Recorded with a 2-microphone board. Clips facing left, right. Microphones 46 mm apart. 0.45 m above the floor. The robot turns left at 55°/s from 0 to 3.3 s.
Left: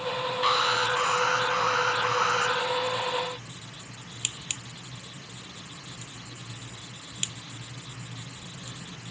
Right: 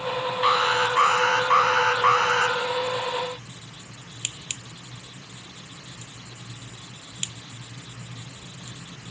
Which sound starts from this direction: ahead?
An alarm, at 0.4 s.